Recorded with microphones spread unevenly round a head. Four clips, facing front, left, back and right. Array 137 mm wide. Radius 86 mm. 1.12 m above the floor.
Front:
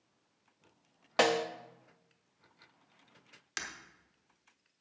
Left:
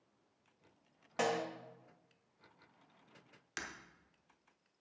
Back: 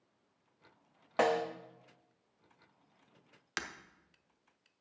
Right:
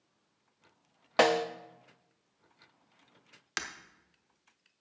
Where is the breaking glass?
135° right, 0.8 m.